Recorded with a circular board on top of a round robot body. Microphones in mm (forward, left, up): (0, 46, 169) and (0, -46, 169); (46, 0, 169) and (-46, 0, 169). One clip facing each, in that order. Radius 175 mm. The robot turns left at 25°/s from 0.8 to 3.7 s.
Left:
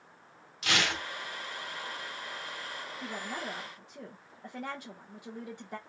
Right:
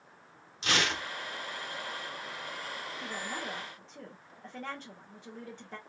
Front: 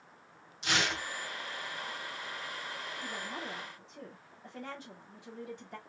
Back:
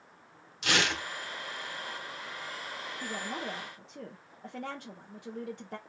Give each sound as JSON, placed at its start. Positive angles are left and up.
{"t": 0.6, "sound": "tearing paper", "azimuth_deg": -155, "distance_m": 1.5}
{"t": 3.0, "sound": "a woman speaking", "azimuth_deg": -175, "distance_m": 1.4}